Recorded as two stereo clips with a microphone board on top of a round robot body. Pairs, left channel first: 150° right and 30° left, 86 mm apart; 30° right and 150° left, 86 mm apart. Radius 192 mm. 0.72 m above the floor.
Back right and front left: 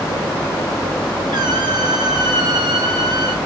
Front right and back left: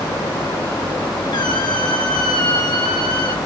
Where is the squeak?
Straight ahead, 5.5 m.